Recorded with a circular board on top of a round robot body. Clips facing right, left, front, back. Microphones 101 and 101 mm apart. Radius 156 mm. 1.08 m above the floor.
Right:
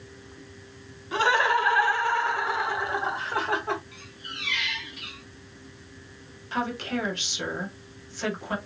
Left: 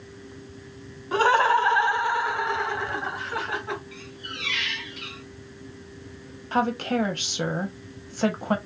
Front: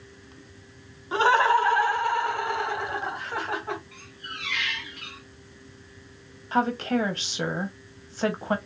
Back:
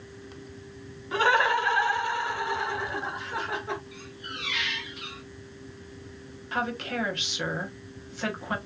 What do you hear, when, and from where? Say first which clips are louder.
1.1 s laughter: left 3 dB, front 3 dB; 60° left, 1.2 m; by 3.8 s 40° right, 1.6 m
3.9 s a squeak: left 4 dB, back 2 dB; 105° left, 0.5 m
6.5 s a woman speaking: left 5 dB, front 6 dB; 55° left, 1.0 m